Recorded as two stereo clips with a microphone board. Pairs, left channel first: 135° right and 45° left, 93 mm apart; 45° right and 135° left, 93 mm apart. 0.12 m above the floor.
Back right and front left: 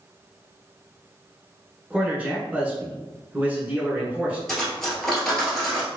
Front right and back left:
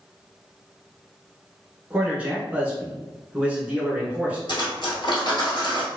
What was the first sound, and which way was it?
A man speaking, 85° left.